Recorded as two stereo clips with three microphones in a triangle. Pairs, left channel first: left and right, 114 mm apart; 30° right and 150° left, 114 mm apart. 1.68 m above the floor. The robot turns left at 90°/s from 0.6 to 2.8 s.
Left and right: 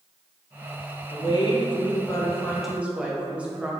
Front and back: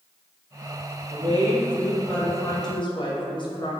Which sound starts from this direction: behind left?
A woman speaking, at 1.1 s.